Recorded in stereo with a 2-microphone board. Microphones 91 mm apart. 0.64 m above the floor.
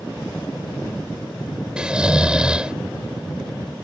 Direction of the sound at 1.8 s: 10° right (ahead or behind).